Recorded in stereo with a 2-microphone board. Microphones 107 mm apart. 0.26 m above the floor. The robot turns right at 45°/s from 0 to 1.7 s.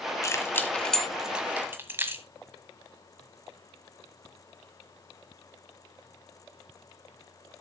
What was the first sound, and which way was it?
Keys jangling, 30° left (ahead or behind).